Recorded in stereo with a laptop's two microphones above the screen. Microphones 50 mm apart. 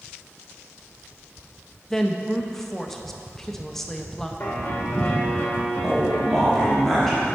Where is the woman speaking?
5° left (ahead or behind), 0.6 m.